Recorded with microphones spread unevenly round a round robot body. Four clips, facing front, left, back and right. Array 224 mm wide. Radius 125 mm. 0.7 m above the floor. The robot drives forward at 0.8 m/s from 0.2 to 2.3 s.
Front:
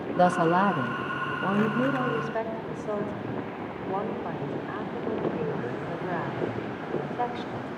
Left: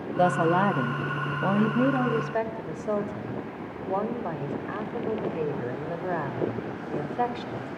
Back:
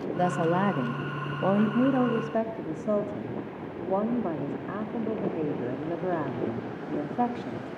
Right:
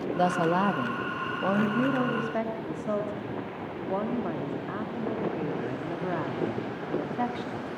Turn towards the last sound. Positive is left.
turn(degrees=170)